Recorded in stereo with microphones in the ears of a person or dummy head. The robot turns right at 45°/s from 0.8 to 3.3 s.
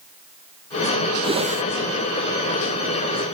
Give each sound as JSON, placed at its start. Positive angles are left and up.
{"t": 1.2, "sound": "a whoosh", "side_deg": -30}